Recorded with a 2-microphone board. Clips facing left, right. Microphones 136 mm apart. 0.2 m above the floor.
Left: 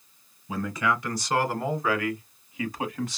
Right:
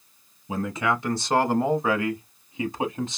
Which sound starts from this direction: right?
A man speaking, at 0.5 s.